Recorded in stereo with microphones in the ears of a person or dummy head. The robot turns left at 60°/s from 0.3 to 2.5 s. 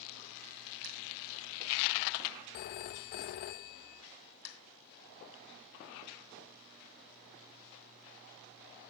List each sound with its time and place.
2.5 s a phone ringing: 45° left (ahead or behind), 0.5 m